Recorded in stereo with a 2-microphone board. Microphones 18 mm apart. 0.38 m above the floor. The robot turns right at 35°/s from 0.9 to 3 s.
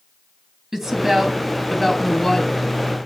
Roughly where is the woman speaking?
Ahead right.